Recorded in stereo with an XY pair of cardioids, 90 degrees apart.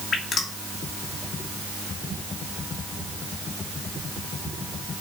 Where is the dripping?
60° left, 2.5 m.